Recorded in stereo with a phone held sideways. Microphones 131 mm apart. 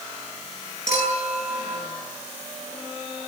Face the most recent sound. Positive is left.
turn(degrees=80)